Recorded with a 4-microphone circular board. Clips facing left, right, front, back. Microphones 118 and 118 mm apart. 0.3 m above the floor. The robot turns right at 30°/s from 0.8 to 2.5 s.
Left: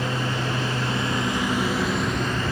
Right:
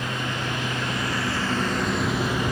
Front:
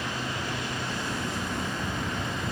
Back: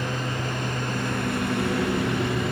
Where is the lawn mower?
145° left; by 2.5 s 165° right.